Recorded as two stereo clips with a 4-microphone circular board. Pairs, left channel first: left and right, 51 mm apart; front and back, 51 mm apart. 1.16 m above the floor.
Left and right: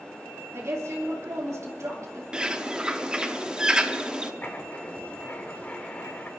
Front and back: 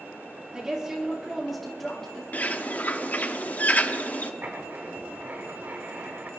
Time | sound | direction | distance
0.5 | a woman speaking | 110° right | 3 m
2.3 | a bird | 25° right | 0.7 m
4.4 | writing | 140° left | 1.2 m